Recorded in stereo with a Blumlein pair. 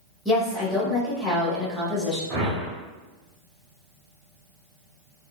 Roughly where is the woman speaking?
Ahead.